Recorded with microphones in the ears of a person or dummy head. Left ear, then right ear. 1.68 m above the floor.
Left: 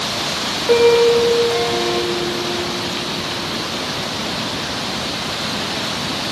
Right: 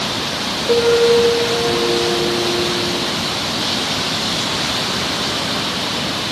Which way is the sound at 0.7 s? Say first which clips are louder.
Left 1 dB; 60° left (ahead or behind).